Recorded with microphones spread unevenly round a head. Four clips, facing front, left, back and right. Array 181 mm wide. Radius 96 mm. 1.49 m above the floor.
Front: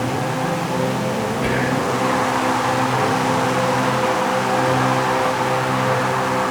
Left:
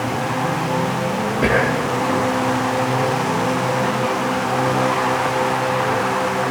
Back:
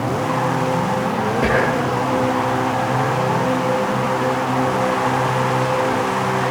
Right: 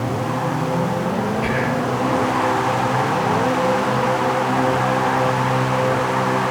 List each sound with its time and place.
1.4 s whispering: 120° left, 3 m